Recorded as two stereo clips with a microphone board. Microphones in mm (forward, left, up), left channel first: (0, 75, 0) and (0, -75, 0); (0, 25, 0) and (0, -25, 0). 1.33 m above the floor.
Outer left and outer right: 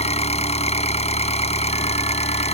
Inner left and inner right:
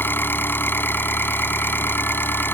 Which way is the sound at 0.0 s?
45° left (ahead or behind).